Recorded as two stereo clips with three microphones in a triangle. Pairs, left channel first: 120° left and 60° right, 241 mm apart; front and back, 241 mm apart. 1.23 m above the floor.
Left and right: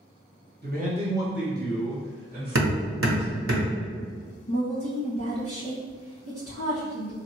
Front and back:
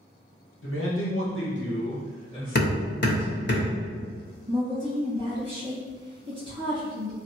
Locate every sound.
0.6 s a man speaking: 20° right, 1.1 m; by 3.5 s 85° left, 2 m
2.5 s hammering: 40° right, 0.8 m
4.5 s a woman speaking: 125° left, 1.4 m